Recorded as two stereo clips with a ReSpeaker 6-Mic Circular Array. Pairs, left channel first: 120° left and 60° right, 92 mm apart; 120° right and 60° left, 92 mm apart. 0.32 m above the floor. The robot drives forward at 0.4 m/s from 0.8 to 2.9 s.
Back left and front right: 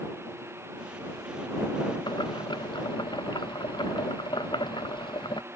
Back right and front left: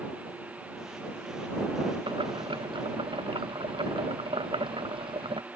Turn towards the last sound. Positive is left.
turn(degrees=85)